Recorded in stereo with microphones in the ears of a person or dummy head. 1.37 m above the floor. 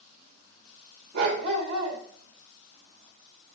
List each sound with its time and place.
1.1 s a dog barking: 55° right (ahead or behind), 2 m